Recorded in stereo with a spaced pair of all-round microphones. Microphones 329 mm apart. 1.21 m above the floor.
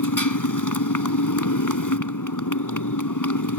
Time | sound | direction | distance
0.0 | a motorcycle | 70° left (ahead or behind) | ?